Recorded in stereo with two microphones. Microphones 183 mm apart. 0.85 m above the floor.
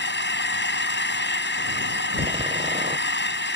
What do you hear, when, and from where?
0.0 s an engine running: 85° left
2.2 s a door slam: 35° right (ahead or behind)